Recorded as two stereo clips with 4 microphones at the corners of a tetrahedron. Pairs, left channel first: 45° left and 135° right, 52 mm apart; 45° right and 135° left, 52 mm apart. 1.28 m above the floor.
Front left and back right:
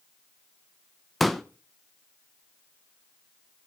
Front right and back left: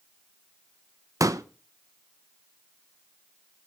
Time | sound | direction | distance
1.2 | a pop | 135° left | 0.7 m